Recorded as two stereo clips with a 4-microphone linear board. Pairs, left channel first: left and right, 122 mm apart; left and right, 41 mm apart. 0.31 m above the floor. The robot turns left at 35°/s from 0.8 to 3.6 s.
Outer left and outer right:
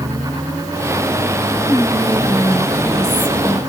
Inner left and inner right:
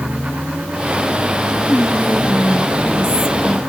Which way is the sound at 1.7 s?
130° left.